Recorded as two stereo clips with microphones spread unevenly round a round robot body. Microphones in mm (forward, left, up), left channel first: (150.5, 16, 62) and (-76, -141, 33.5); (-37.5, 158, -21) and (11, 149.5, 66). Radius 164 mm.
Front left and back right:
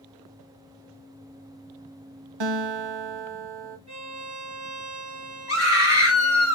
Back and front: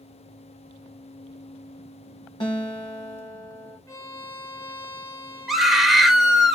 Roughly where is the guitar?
Behind.